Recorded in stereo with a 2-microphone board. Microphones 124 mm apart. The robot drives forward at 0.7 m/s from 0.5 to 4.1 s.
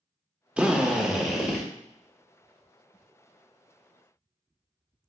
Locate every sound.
0.6 s a drill: 10° right (ahead or behind), 0.5 m; by 1.6 s 5° right (ahead or behind), 1.1 m